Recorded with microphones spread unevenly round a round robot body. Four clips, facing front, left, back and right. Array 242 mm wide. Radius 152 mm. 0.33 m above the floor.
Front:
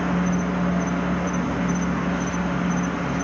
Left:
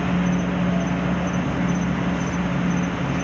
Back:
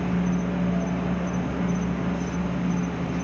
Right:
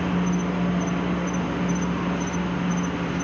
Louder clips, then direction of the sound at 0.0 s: Left 2 dB, front 3 dB; 85° left.